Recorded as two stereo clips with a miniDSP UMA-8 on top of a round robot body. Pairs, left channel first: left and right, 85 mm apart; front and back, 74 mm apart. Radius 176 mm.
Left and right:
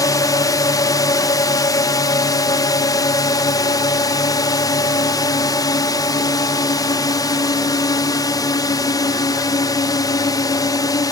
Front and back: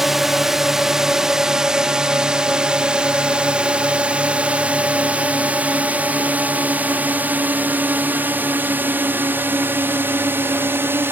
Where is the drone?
95° left; by 11.1 s 125° left.